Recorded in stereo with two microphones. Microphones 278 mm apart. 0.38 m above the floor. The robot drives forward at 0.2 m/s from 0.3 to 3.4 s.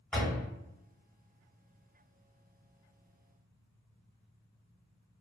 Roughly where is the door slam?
Centre.